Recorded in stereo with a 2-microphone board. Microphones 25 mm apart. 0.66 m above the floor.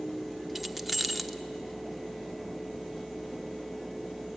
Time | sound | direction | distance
0.6 | keys jangling | 5° right (ahead or behind) | 0.8 m